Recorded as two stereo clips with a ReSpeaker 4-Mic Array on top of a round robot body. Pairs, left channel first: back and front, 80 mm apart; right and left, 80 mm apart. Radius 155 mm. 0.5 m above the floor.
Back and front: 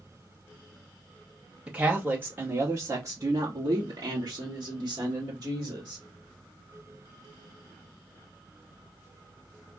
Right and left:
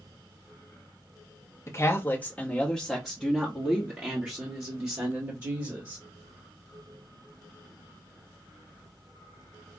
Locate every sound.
1.7 s a woman speaking: 70° right, 1.3 m; by 6.0 s 45° left, 2.5 m